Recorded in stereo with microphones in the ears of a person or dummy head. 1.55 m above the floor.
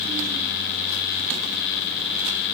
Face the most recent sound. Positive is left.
No sound to turn to.